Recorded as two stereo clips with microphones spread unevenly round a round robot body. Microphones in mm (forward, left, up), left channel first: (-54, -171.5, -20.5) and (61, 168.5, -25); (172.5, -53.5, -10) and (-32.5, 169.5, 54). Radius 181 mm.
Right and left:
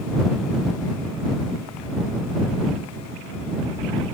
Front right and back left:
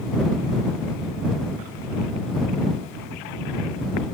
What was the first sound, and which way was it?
Only background noise.